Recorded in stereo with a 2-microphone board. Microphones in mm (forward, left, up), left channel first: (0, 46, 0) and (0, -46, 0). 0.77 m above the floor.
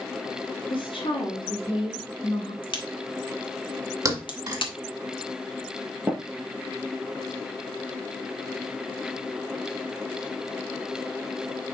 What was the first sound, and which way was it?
A woman speaking, 65° left (ahead or behind).